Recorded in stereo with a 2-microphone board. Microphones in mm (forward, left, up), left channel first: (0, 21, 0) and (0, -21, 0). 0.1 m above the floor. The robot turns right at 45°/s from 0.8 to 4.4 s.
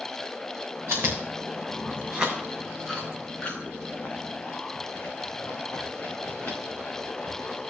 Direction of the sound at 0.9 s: 85° right.